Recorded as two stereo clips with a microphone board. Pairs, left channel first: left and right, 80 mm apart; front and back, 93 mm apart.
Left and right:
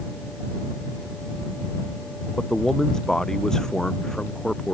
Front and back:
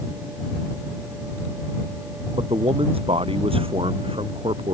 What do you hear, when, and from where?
2.4 s a man speaking: 175° left